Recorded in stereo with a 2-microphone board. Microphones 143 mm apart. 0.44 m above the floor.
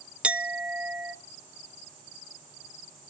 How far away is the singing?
I don't hear singing.